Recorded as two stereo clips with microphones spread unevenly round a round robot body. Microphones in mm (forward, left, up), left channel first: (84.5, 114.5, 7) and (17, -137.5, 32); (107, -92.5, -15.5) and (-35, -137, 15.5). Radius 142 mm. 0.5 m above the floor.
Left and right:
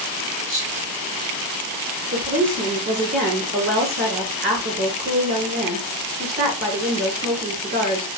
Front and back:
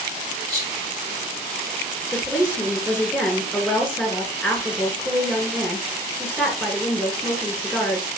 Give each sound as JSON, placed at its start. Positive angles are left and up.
{"t": 0.5, "sound": "whispering", "azimuth_deg": 170, "distance_m": 1.7}
{"t": 2.1, "sound": "a woman speaking", "azimuth_deg": -70, "distance_m": 2.5}